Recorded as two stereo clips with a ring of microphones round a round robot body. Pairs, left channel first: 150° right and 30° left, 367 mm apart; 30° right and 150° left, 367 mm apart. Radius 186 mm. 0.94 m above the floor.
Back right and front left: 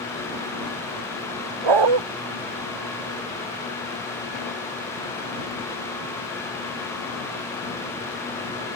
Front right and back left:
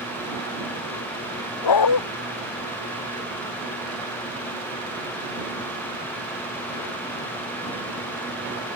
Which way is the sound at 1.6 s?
5° left.